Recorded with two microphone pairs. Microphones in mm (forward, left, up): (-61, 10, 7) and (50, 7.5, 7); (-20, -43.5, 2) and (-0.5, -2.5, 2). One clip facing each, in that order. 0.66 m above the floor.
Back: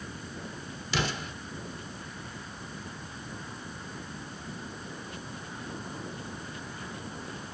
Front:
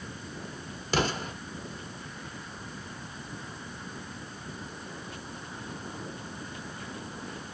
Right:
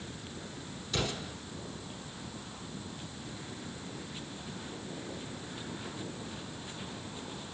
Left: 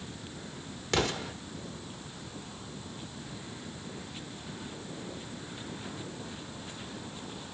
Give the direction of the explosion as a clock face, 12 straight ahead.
11 o'clock.